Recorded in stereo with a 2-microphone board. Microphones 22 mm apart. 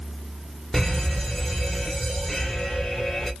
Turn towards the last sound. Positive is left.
turn(degrees=10)  # may be behind; listen again after turning